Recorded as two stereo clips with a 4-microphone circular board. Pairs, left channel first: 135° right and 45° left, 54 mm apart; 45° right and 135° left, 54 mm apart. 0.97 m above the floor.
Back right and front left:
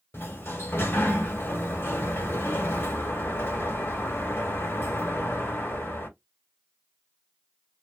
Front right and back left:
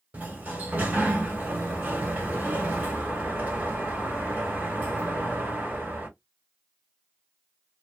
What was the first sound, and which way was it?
A sliding door, 170° right.